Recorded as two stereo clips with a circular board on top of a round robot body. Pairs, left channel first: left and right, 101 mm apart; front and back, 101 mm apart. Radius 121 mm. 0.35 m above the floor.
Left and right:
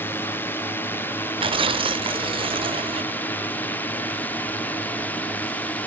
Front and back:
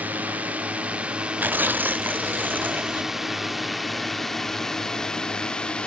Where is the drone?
125° left; by 5.9 s 60° left.